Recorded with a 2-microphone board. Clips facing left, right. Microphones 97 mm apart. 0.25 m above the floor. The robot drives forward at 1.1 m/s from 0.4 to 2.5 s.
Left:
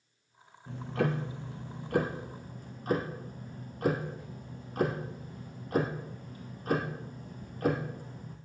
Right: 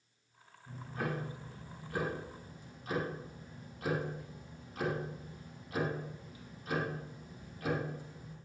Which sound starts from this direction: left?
Ticking, at 0.7 s.